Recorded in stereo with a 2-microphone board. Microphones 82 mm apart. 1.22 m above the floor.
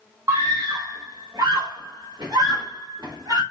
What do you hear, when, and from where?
0.3 s a scream: 35° right (ahead or behind), 0.7 m; by 3.4 s 60° right (ahead or behind), 2.5 m